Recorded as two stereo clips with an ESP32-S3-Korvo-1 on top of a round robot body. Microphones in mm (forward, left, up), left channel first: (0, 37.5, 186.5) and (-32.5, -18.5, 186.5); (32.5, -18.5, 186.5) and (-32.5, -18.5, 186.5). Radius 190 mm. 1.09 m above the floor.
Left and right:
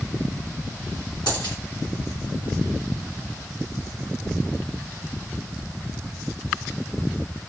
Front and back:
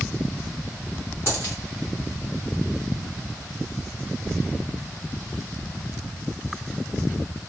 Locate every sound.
1.3 s a dropped coin: 55° left, 1.5 m